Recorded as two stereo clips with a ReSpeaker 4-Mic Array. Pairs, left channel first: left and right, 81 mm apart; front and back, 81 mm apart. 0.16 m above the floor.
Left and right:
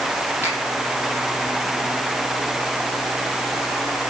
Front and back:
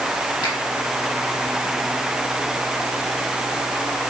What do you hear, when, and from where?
0.4 s a finger snap: 30° right, 5 m